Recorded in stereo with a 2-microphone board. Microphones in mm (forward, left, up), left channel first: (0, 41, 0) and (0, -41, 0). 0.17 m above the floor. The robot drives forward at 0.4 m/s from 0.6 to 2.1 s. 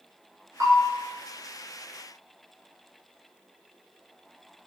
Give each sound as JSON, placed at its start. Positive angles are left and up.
{"t": 0.6, "sound": "a bell", "side_deg": -35, "distance_m": 0.9}